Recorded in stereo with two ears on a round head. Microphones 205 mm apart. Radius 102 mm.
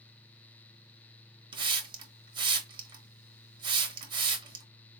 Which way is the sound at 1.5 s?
20° right (ahead or behind).